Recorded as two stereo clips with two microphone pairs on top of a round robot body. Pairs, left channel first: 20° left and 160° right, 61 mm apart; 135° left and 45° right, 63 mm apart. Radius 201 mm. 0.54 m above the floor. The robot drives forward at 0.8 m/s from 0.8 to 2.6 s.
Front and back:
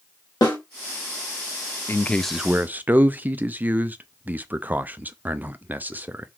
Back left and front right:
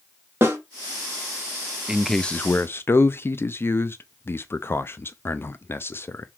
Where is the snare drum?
10° left, 2.5 m.